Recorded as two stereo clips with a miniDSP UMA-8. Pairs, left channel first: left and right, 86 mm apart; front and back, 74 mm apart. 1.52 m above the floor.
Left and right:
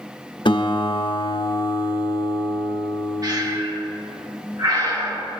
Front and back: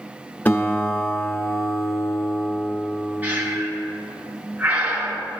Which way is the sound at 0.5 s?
65° left.